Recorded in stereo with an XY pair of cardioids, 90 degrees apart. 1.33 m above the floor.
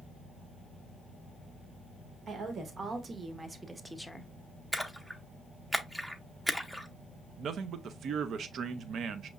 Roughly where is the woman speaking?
Ahead right.